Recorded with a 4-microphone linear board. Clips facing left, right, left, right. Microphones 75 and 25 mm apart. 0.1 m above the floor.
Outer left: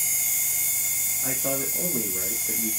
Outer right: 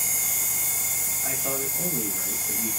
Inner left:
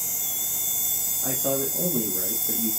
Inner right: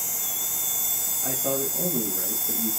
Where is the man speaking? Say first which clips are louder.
Outer left 2 dB, inner left 1 dB; 50° left (ahead or behind), 3.5 m; by 2.7 s 35° left (ahead or behind), 3 m.